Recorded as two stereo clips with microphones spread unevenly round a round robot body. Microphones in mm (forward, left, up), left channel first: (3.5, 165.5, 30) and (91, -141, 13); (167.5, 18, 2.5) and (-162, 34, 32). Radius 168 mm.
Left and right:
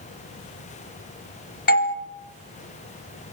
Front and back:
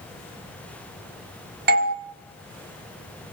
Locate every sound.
1.7 s a doorbell: 135° left, 1.3 m